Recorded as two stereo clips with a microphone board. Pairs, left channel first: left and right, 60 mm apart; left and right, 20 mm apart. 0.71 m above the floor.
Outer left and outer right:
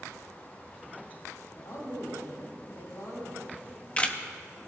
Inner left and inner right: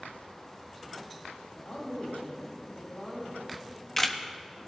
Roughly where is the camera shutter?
Left.